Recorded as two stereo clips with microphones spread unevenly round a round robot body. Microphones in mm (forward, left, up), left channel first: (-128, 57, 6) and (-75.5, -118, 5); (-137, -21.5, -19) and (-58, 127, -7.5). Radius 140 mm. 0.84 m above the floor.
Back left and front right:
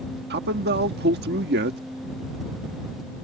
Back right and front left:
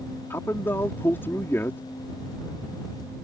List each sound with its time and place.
0.3 s a man speaking: 40° right